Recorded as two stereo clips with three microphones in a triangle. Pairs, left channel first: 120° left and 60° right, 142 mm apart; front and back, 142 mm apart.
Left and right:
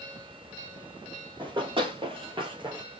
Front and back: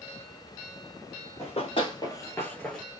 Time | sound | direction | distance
1.4 | running footsteps | 20° right | 2.5 m